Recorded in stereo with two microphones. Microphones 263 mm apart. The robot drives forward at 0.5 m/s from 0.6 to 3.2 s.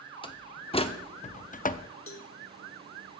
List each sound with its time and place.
0.2 s a door slam: 20° left (ahead or behind), 0.8 m; by 1.9 s 30° left (ahead or behind), 0.5 m
2.1 s a cowbell: 55° left (ahead or behind), 1.1 m; by 2.3 s 50° left (ahead or behind), 1.2 m